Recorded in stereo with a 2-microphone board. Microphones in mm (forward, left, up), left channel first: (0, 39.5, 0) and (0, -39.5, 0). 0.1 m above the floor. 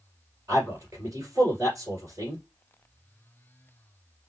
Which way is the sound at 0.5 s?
45° right (ahead or behind).